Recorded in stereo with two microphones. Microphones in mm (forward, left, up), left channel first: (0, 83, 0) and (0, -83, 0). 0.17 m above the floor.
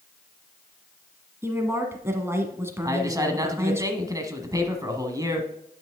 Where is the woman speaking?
15° right (ahead or behind), 1.2 m.